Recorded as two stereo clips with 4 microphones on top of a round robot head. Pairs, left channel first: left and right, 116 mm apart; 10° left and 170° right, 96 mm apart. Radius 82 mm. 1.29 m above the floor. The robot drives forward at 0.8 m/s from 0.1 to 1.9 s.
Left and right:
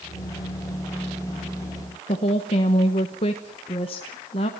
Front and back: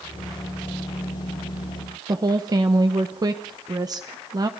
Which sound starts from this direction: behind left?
A woman speaking, at 2.1 s.